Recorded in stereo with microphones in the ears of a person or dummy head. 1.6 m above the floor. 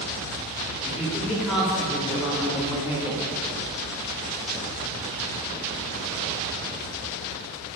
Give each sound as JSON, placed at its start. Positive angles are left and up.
{"t": 0.8, "sound": "a woman speaking", "side_deg": -5, "distance_m": 5.0}